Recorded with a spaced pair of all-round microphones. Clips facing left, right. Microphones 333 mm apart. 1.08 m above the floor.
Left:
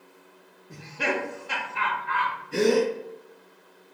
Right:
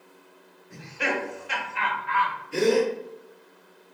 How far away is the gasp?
About 1.9 m.